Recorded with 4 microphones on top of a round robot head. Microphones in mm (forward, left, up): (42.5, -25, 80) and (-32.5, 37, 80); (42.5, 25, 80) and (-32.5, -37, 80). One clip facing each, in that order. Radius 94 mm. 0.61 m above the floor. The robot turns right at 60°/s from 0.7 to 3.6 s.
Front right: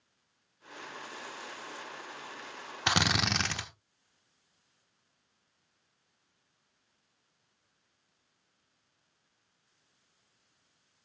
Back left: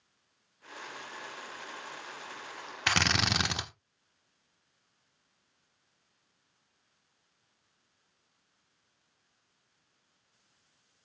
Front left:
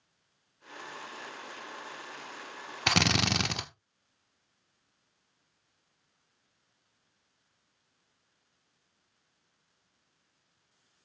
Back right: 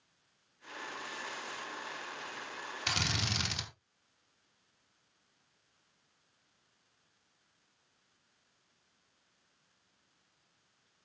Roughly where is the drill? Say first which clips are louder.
Even, front left 10 dB; ahead left.